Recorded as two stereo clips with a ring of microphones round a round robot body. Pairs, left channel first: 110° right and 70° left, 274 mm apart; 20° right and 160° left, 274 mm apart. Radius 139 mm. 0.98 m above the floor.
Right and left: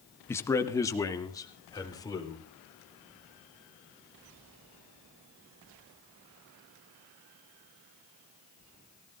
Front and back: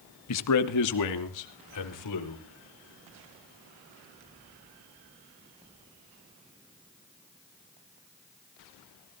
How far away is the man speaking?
About 1.5 m.